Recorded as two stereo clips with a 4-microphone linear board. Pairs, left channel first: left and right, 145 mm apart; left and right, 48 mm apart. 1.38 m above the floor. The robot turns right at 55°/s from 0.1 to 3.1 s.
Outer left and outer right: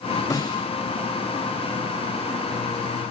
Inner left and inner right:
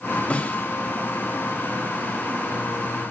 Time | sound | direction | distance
0.3 | a snare drum | 25° left (ahead or behind) | 3.5 m